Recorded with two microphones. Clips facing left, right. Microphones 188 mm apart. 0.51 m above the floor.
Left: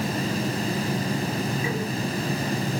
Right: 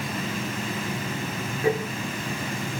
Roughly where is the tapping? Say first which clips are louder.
Right 6 dB; right.